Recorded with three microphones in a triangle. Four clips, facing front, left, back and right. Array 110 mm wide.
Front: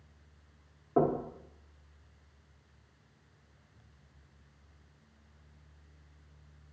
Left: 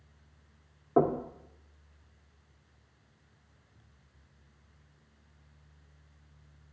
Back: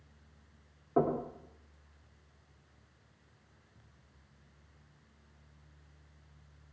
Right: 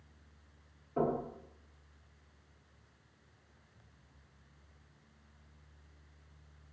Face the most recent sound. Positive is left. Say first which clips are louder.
# left 7 dB, front 2 dB
turn(degrees=85)